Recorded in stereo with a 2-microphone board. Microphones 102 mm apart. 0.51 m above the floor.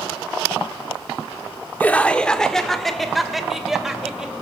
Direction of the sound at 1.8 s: 15° left (ahead or behind).